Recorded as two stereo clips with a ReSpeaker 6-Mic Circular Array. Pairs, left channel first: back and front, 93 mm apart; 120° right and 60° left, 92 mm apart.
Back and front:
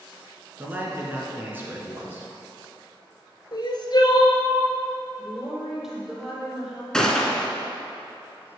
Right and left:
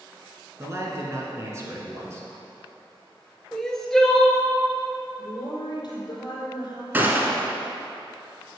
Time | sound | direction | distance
0.6 | a man speaking | 45° left | 1.6 m
3.5 | crying | 155° left | 0.9 m
5.2 | a woman speaking | 90° right | 3 m
6.9 | a gunshot | 105° left | 0.9 m